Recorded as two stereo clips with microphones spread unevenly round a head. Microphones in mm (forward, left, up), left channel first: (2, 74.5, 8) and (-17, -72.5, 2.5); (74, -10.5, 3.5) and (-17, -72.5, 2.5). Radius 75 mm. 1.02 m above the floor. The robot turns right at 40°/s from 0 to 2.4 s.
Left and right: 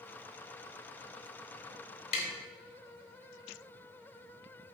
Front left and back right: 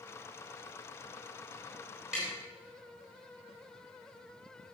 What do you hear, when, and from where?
2.1 s tapping: 130° left, 3 m; by 2.3 s 135° left, 3 m